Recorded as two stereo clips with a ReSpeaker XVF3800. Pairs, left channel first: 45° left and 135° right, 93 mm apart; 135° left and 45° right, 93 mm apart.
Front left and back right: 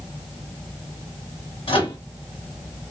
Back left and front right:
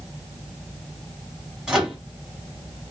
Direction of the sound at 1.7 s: 40° left.